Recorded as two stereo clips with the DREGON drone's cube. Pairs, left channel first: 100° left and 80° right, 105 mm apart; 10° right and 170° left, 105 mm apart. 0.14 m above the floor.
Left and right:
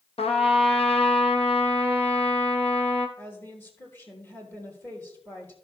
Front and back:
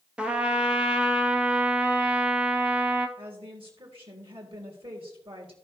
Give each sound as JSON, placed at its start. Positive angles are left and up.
{"t": 0.2, "sound": "a trumpet", "azimuth_deg": 90, "distance_m": 1.2}
{"t": 3.2, "sound": "a woman speaking", "azimuth_deg": 170, "distance_m": 3.0}